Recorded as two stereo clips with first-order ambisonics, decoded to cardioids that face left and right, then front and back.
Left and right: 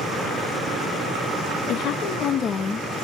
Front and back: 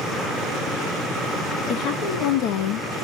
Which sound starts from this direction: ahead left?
A woman speaking, at 1.7 s.